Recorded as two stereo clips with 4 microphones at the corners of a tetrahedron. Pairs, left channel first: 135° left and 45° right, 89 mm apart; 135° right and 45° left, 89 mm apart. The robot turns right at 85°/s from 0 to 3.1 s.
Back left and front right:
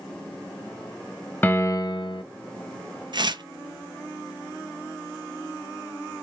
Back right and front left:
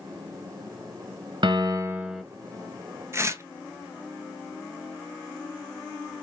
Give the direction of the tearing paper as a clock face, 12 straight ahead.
12 o'clock.